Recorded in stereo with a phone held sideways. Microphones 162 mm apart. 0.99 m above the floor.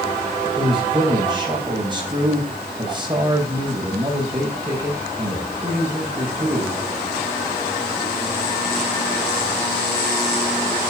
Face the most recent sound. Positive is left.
turn(degrees=-30)  # may be behind; listen again after turning